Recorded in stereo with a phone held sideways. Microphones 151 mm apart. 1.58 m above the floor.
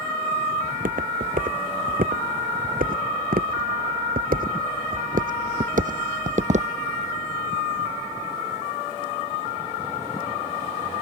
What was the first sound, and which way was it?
Footsteps, 65° right (ahead or behind).